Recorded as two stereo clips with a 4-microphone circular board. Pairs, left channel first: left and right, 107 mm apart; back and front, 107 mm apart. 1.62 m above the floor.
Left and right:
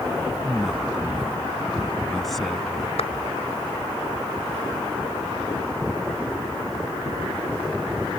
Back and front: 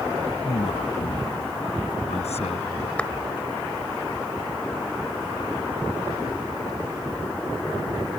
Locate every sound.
0.4 s a man speaking: straight behind
3.0 s a clap: 100° left